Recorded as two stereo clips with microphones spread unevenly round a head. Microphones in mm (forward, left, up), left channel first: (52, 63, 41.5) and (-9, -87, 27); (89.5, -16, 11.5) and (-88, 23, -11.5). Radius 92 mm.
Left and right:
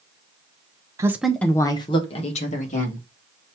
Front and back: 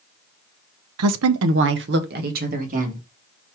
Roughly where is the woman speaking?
Behind.